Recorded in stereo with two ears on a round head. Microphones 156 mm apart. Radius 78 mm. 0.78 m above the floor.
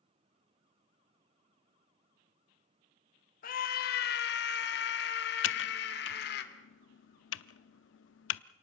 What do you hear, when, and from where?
3.4 s a scream: 50° left (ahead or behind), 1.3 m; by 6.4 s 65° left (ahead or behind), 2.5 m
5.4 s typing on a keyboard: 85° left, 0.6 m